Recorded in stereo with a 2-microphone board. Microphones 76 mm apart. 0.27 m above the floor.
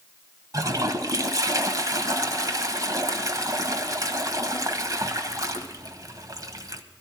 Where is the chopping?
I don't hear chopping.